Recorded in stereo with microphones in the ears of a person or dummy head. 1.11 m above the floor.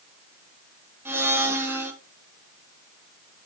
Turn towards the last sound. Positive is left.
turn(degrees=-10)  # may be behind; listen again after turning